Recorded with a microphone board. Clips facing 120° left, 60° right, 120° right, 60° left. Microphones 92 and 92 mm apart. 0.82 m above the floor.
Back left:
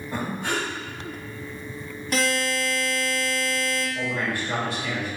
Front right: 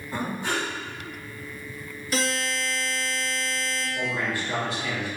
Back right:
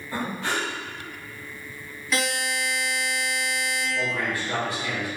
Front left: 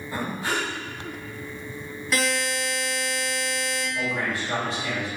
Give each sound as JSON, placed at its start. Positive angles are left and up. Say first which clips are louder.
{"t": 0.1, "sound": "breathing", "louder": "even, even", "azimuth_deg": 140, "distance_m": 1.8}
{"t": 2.1, "sound": "a buzzer", "louder": "back left 3 dB, front left 1 dB", "azimuth_deg": 145, "distance_m": 1.9}
{"t": 4.0, "sound": "a man speaking", "louder": "back left 1 dB, front left 1 dB", "azimuth_deg": 115, "distance_m": 1.8}